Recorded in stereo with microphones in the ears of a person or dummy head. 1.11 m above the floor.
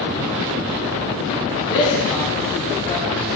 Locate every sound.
1.7 s a man speaking: 60° left (ahead or behind), 2.5 m; by 3.3 s 30° left (ahead or behind), 2.5 m